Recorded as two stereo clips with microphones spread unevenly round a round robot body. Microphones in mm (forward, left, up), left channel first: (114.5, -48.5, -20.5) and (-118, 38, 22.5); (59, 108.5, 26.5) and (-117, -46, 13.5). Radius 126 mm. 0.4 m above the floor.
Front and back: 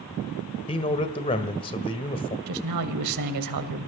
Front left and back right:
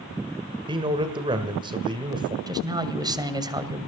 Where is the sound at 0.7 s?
75° right, 1.7 m.